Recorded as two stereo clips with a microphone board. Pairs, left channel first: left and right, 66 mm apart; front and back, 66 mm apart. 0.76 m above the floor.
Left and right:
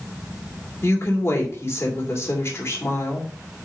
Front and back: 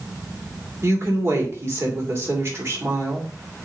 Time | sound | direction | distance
0.8 | a woman speaking | 135° left | 2.5 m